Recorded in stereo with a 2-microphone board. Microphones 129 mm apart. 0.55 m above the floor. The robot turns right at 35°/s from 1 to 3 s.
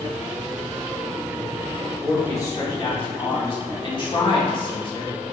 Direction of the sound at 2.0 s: 15° left.